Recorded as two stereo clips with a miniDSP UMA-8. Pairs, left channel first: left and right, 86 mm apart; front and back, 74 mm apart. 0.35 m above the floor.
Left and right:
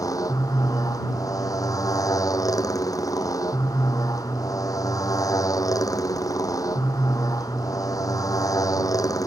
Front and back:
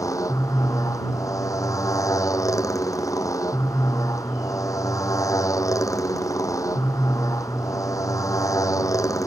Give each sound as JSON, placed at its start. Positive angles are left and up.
{"t": 0.0, "sound": "a motorcycle", "azimuth_deg": 40}